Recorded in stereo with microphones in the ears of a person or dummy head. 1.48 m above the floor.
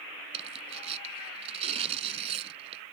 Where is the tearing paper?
35° right (ahead or behind).